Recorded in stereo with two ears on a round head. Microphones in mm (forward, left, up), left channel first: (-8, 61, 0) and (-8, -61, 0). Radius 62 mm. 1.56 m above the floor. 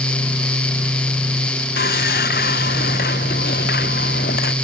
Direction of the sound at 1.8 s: 85° left.